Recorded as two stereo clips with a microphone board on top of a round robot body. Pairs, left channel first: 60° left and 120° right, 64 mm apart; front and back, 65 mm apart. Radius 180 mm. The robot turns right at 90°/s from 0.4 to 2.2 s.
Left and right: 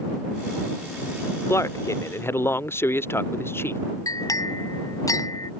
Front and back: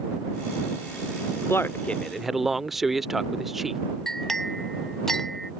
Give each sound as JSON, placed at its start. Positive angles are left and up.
{"t": 1.5, "sound": "a man speaking", "azimuth_deg": 30}
{"t": 4.1, "sound": "a clink", "azimuth_deg": 85}